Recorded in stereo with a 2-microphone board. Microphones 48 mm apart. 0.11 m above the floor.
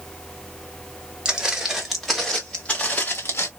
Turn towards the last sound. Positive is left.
turn(degrees=60)  # may be behind; listen again after turning